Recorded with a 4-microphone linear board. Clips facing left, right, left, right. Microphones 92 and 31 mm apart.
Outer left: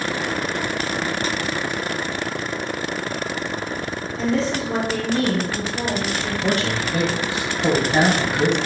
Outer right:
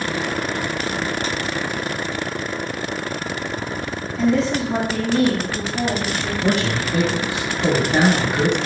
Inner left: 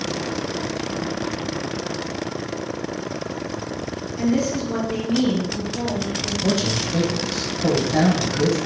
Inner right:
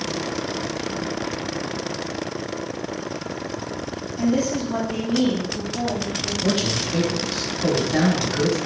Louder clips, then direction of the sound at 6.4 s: Outer right 2 dB, inner left 1 dB; 20° right (ahead or behind).